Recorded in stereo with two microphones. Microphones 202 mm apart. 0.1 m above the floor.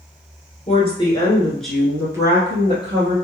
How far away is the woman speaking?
About 1.4 m.